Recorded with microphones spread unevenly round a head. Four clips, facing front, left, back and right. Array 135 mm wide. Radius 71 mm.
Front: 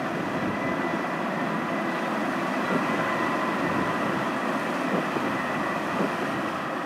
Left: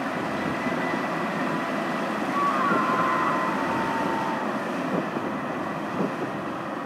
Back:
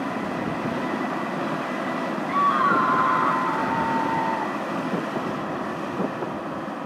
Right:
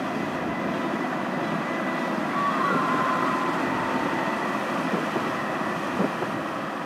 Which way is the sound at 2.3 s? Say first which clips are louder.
Left 2 dB, back 6 dB; 175° left.